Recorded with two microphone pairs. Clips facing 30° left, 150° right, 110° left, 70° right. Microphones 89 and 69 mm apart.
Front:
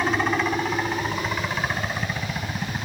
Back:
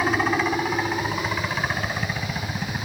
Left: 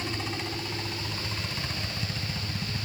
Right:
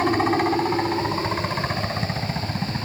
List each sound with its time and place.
0.0 s a helicopter: 65° right; by 2.9 s 55° right